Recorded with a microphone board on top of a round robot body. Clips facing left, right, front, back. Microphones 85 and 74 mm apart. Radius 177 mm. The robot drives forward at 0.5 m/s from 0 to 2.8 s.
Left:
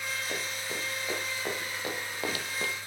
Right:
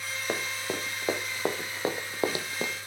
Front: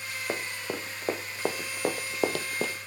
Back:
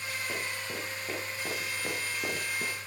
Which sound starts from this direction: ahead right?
Running footsteps, at 0.3 s.